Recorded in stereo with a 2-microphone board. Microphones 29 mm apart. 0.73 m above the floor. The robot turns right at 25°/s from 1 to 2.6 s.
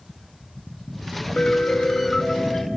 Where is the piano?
145° left, 0.7 m; by 2.7 s 175° left, 0.7 m.